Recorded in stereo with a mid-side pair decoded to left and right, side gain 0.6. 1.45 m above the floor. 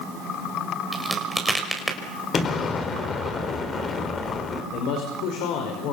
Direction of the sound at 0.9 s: 10° right.